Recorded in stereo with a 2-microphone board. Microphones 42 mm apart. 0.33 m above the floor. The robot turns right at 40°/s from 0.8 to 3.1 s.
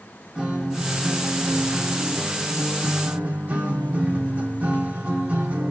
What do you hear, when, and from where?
0.3 s a guitar: 155° right, 1.7 m; by 5.7 s 65° right, 1.7 m